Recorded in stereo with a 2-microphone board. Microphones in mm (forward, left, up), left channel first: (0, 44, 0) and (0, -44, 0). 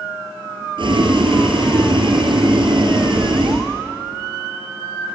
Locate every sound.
0.8 s boiling: 65° right (ahead or behind), 3 m